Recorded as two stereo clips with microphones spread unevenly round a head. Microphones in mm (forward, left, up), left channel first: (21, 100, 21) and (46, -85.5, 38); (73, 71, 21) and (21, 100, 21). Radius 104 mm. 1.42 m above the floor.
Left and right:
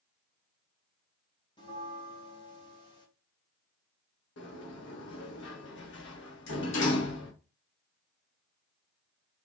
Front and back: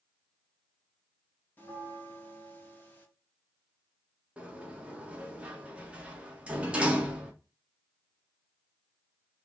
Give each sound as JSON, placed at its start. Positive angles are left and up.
{"t": 1.6, "sound": "a bell", "azimuth_deg": 35, "distance_m": 1.9}
{"t": 4.4, "sound": "a sliding door", "azimuth_deg": 80, "distance_m": 1.4}